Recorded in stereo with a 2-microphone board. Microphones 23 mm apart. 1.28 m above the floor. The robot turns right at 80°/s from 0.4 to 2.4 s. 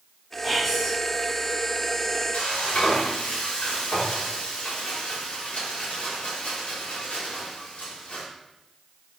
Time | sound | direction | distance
0.4 | whispering | 20° right | 5 m
2.3 | frying | 80° left | 4.5 m